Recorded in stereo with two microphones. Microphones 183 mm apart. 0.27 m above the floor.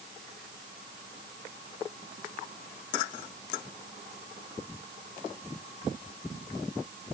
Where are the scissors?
No scissors in this recording.